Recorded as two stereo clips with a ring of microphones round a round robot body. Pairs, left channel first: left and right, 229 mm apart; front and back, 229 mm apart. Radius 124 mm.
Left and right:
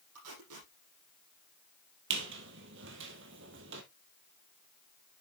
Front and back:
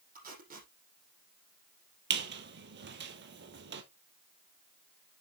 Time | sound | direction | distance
0.1 | tape being pulled | 130° right | 6 m
2.1 | a squeak | 140° right | 1.4 m